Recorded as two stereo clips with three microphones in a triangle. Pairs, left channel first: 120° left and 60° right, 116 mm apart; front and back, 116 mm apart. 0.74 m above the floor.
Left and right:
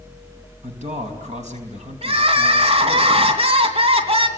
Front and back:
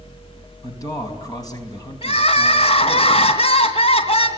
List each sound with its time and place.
0.6 s a man speaking: 55° right, 4.5 m
2.0 s crying: 30° right, 3 m